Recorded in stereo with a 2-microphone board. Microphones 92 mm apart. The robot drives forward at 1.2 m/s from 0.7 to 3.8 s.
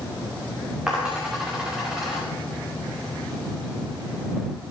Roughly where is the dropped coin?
Centre.